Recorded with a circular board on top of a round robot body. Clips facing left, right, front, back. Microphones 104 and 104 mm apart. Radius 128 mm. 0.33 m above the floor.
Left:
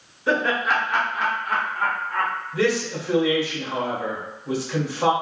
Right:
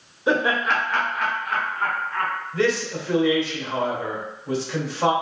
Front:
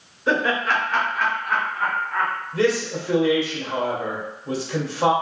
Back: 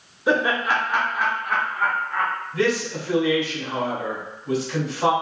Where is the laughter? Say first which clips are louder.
Right 1 dB, back 1 dB; 125° right, 1.0 m; by 2.3 s 100° left, 1.7 m.